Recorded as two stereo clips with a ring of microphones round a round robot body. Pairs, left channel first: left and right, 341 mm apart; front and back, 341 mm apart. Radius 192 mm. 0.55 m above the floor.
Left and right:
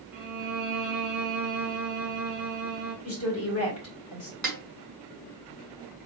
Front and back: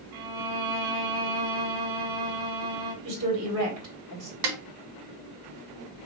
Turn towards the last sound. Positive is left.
turn(degrees=180)